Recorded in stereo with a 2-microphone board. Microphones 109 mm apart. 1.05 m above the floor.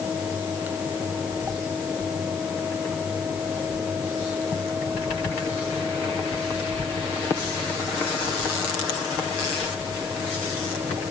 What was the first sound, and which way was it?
Only background noise.